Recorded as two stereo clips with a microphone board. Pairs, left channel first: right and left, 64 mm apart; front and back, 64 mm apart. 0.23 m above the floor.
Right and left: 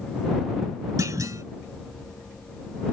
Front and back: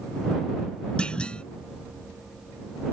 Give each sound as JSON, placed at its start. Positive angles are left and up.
{"t": 1.0, "sound": "a clunk", "azimuth_deg": 70}